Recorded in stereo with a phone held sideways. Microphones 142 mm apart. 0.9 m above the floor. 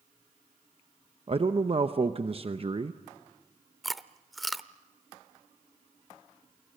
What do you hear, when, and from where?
1.3 s a man speaking: 40° right (ahead or behind), 0.8 m
3.8 s chewing: centre (ahead or behind), 0.6 m